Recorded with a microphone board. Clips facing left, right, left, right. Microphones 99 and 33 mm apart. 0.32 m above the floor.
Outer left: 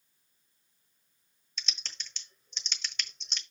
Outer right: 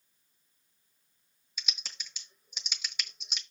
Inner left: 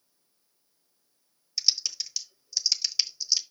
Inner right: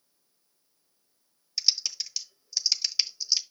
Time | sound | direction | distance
1.6 | typing on a keyboard | 5° right (ahead or behind) | 1.2 m